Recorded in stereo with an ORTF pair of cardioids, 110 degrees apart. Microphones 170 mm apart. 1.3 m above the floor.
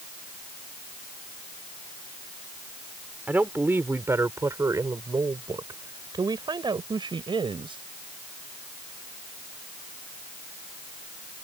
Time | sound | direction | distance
3.3 | a woman speaking | 10° right | ?